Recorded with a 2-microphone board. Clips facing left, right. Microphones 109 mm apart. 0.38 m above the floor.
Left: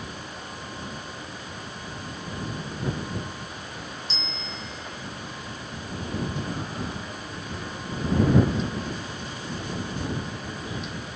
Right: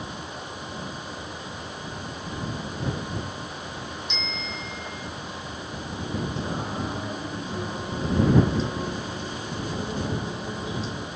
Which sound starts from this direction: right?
Singing, at 6.4 s.